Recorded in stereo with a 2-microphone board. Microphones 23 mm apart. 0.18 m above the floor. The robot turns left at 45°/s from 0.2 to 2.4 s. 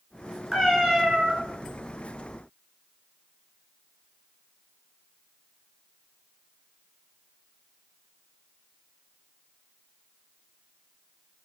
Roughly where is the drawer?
No drawer in this recording.